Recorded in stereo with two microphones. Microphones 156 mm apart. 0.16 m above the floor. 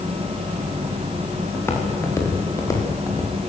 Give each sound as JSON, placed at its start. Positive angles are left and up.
{"t": 1.5, "sound": "footsteps", "side_deg": 15, "distance_m": 7.0}